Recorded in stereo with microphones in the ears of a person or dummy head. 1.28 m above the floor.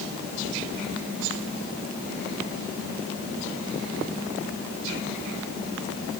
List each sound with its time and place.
Only background noise.